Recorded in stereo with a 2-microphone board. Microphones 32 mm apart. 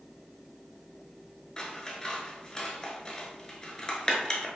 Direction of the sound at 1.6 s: 25° left (ahead or behind).